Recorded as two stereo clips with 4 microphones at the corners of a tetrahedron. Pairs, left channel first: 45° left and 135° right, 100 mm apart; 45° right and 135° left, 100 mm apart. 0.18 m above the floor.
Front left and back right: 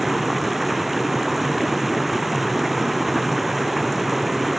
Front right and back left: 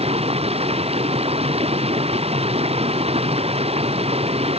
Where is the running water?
135° left.